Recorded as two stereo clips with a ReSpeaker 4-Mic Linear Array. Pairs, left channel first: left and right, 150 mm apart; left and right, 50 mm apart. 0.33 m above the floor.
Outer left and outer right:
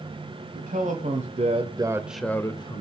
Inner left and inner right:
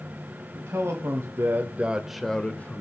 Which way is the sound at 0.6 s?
65° right (ahead or behind).